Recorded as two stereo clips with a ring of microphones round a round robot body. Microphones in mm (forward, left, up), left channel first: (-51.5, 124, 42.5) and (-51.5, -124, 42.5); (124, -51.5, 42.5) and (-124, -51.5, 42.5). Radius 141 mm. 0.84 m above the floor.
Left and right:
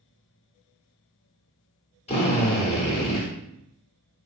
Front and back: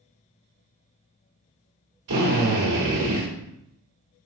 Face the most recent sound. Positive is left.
turn(degrees=155)